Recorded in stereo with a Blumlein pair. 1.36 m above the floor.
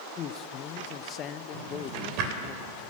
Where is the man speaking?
30° left, 0.9 m.